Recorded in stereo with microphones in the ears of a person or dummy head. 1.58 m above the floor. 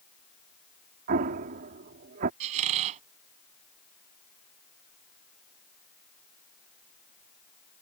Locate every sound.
1.1 s an explosion: 45° right (ahead or behind)
2.4 s a squeak: 35° right (ahead or behind)